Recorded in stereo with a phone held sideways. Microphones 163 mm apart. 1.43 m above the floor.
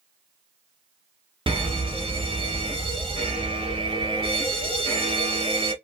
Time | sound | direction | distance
1.5 | a fire alarm | 35° right (ahead or behind) | 1.0 m